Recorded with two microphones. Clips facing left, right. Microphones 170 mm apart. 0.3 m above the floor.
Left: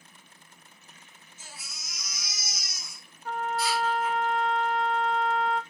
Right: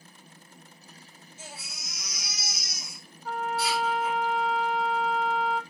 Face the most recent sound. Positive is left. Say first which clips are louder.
# even
turn(degrees=0)  # may be behind; listen again after turning